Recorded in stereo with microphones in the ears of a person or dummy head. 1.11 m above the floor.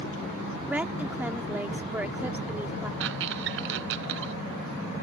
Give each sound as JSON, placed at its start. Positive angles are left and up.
{"t": 0.7, "sound": "a woman speaking", "side_deg": -5}
{"t": 3.0, "sound": "a squeak", "side_deg": -65}